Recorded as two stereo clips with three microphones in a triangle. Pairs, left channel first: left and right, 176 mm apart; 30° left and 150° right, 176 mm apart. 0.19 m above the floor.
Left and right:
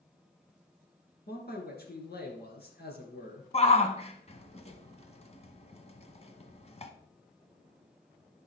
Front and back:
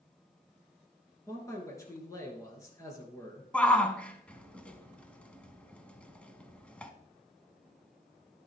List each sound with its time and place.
1.3 s a man speaking: 100° left, 2.5 m
3.5 s a shout: 110° left, 1.2 m